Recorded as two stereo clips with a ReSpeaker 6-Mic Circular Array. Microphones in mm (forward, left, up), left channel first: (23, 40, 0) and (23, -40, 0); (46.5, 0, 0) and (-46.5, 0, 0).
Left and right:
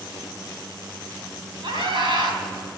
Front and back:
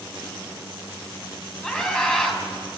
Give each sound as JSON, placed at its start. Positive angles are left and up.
{"t": 1.6, "sound": "a scream", "azimuth_deg": -75, "distance_m": 5.0}